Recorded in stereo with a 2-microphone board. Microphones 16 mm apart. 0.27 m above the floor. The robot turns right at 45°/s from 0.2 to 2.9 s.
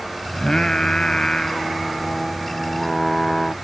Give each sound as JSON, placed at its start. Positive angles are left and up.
{"t": 0.3, "sound": "singing", "azimuth_deg": 50}